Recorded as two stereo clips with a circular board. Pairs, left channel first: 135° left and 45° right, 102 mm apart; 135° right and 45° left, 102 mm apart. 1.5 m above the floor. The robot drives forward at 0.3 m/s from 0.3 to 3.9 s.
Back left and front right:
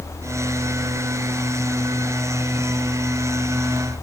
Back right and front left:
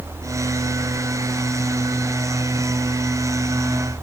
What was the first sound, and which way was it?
Only background noise.